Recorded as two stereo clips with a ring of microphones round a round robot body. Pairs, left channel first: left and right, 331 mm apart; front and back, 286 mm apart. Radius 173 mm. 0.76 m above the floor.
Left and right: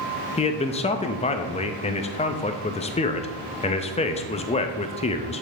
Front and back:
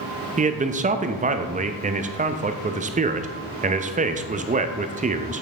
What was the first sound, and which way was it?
A man speaking, 145° left.